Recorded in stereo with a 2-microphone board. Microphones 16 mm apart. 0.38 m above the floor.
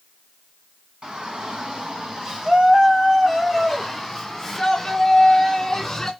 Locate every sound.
1.0 s a shout: 55° right (ahead or behind), 3 m; by 6.1 s 20° left (ahead or behind), 3.5 m